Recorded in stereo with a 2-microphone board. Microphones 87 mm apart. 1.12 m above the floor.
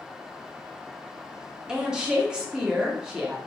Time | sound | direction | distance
1.7 | a woman speaking | 10° right (ahead or behind) | 0.7 m